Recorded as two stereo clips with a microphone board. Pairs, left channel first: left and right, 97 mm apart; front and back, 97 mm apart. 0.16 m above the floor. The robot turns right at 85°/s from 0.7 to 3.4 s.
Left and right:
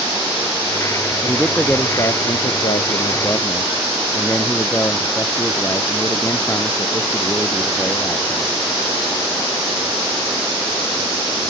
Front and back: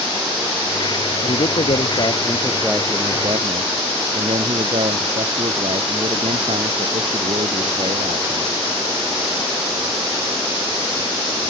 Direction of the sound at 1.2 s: 30° right.